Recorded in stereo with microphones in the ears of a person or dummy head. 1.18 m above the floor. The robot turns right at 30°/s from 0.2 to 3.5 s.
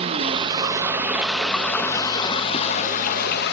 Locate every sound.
0.0 s running water: 30° right, 0.8 m; by 3.5 s 70° left, 0.8 m